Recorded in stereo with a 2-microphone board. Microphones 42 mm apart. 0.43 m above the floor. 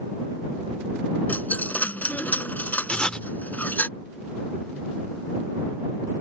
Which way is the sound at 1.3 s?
45° left (ahead or behind).